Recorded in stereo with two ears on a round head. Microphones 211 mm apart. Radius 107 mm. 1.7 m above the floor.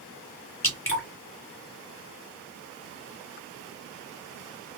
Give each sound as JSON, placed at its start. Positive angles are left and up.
{"t": 0.6, "sound": "dripping", "side_deg": 15, "distance_m": 1.5}